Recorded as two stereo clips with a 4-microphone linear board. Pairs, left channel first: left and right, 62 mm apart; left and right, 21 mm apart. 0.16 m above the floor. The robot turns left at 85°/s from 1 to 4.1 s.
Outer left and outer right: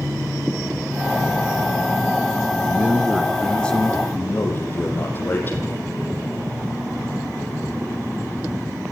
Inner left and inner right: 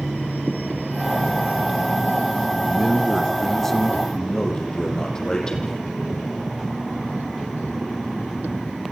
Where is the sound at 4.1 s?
35° left (ahead or behind), 6.5 m.